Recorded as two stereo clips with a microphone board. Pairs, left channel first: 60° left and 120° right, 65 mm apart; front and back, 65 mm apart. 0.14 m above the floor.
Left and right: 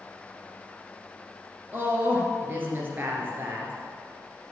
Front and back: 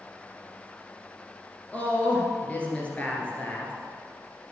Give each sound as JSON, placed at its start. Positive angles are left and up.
{"t": 1.7, "sound": "a woman speaking", "azimuth_deg": -65, "distance_m": 2.0}